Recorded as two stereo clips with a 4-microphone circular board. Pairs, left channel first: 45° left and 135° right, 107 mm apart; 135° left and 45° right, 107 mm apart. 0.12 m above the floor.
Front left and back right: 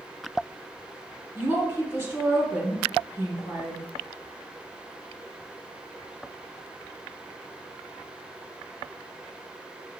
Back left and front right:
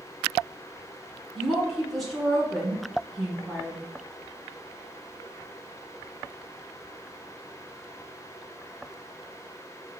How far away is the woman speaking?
About 1.6 m.